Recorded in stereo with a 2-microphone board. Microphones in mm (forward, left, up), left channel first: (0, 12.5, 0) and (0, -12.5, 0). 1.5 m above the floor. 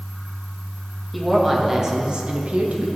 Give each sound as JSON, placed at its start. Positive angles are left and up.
{"t": 1.1, "sound": "a woman speaking", "side_deg": -5, "distance_m": 2.5}